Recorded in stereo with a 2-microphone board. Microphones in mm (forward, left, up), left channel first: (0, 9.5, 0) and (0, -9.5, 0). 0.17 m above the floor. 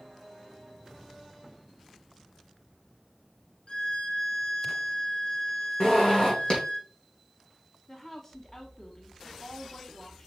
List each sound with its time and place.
3.7 s a violin: 70° left (ahead or behind), 1.1 m
5.8 s a zipper: 65° left (ahead or behind), 3.5 m
7.9 s a woman speaking: 30° left (ahead or behind), 1.3 m